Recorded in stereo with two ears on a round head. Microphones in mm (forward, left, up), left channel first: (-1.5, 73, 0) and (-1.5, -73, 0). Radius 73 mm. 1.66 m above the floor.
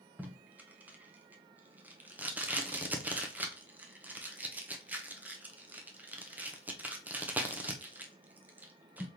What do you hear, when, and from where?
0.2 s tape being pulled: 10° right (ahead or behind), 0.7 m